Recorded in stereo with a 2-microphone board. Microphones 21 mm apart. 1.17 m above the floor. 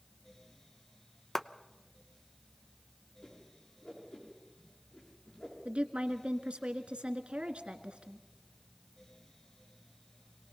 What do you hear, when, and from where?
1.4 s a clap: 20° left (ahead or behind), 0.6 m
3.2 s a whoosh: 65° left (ahead or behind), 7.5 m
5.7 s a woman speaking: 65° right (ahead or behind), 1.8 m